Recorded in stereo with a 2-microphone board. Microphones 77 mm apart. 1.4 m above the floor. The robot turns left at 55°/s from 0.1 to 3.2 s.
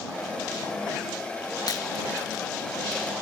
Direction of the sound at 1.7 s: 55° left (ahead or behind).